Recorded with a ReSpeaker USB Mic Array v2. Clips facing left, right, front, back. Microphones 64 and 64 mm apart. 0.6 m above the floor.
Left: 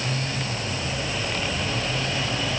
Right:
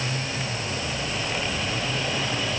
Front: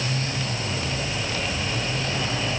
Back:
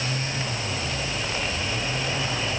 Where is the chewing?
I don't hear chewing.